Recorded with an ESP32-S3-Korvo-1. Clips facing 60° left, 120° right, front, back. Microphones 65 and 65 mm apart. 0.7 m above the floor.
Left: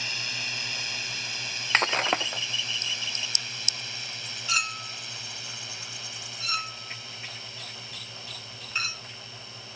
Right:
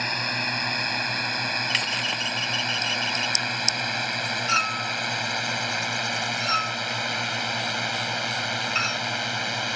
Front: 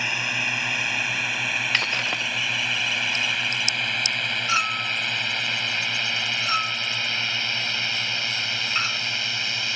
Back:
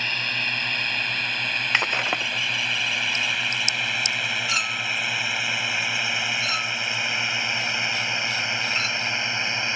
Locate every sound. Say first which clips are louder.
0.0 s a drone: right 8 dB, front 1 dB; 80° right; by 9.8 s 115° right
1.7 s breaking glass: left 3 dB, back 2 dB; 110° left
4.5 s a clink: right 5 dB, front 2 dB; 60° right